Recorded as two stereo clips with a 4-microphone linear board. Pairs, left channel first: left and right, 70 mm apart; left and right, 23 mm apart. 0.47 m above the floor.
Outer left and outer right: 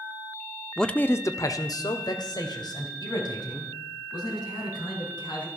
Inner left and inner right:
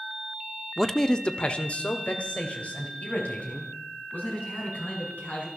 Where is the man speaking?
5° left (ahead or behind), 0.7 m; by 5.5 s 80° left, 5.5 m.